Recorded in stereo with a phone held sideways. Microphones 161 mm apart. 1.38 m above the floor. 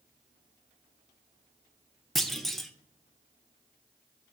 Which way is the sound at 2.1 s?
Centre (ahead or behind).